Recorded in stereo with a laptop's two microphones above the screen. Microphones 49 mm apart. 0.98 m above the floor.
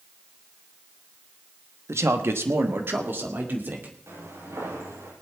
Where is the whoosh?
I don't hear a whoosh.